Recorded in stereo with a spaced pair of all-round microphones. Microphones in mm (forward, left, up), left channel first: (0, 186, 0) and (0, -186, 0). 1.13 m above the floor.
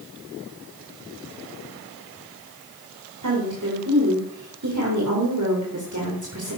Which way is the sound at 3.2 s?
50° right (ahead or behind).